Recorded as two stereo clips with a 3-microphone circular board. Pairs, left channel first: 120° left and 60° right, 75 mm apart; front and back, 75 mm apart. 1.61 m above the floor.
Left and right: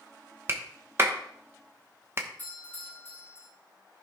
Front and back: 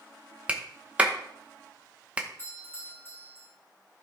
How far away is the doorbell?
About 3.5 m.